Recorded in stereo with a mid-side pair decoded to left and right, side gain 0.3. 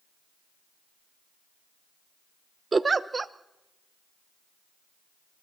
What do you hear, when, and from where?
2.7 s a giggle: 40° right, 0.9 m